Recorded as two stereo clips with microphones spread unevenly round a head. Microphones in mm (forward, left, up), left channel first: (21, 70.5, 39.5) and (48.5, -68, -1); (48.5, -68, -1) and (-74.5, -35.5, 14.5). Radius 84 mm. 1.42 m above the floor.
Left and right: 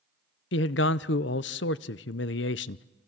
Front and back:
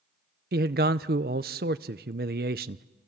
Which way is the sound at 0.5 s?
125° left.